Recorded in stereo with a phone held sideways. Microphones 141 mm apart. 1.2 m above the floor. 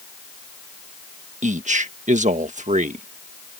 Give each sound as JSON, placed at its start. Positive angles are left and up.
{"t": 1.4, "sound": "a man speaking", "side_deg": -60}